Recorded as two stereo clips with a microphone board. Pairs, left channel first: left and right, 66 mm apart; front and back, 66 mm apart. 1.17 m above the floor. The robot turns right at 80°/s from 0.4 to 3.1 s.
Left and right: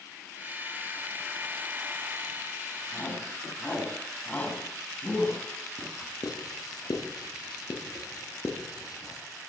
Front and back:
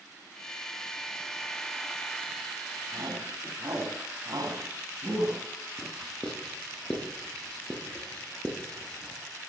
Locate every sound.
2.9 s a shout: 140° left, 8.5 m; by 5.4 s 155° left, 8.5 m
5.8 s writing: 80° left, 6.5 m